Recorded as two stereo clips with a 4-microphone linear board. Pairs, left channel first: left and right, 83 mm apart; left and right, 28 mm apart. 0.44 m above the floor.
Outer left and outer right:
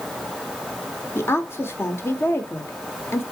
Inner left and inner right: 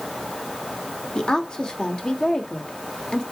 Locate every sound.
1.1 s a woman speaking: 30° left (ahead or behind), 1.2 m